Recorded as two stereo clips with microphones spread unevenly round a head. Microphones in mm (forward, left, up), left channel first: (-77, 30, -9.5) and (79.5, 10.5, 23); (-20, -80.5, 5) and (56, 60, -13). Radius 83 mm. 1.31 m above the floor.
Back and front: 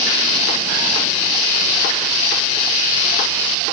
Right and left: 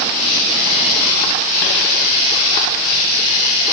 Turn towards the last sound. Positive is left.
No sound to turn to.